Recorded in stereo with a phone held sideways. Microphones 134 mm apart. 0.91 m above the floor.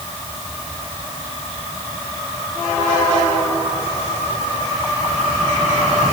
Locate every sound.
Only background noise.